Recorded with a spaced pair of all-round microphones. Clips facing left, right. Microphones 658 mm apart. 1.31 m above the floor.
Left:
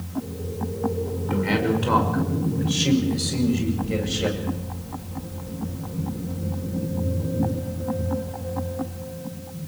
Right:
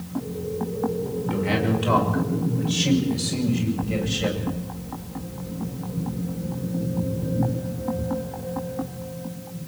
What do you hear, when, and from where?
1.3 s a man speaking: 5° right (ahead or behind), 5.5 m; by 4.5 s 25° right (ahead or behind), 8.5 m